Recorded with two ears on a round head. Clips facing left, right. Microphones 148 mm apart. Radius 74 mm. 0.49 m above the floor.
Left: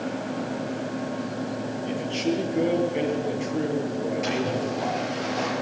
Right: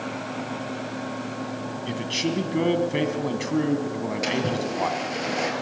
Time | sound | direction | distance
1.9 | a man speaking | 75° right (ahead or behind) | 3 m
4.2 | a splash | 70° right (ahead or behind) | 4.5 m